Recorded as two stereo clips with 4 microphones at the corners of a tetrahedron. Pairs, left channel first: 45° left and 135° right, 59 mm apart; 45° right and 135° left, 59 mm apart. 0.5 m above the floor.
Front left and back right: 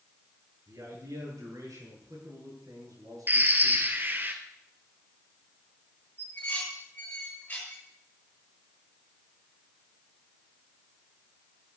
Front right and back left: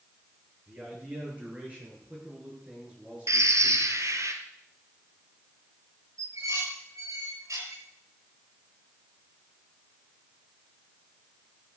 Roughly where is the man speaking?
Behind.